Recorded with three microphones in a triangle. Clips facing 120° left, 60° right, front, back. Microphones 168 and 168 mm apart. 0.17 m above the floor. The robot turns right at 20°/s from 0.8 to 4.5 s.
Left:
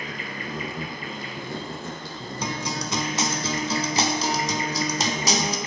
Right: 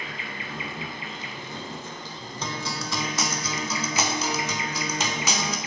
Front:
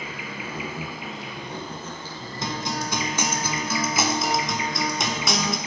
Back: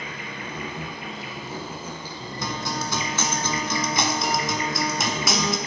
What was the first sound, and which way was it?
An insect, 80° left.